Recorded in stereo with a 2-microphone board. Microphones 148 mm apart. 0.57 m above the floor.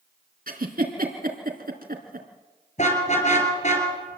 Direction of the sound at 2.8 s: 50° left (ahead or behind).